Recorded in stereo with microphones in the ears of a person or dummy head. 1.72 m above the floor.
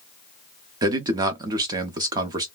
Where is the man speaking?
25° right (ahead or behind), 0.6 m.